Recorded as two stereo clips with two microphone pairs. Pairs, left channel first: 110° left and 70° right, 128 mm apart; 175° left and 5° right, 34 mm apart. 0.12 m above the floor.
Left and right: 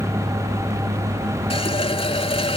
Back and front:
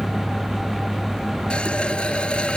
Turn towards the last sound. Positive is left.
turn(degrees=130)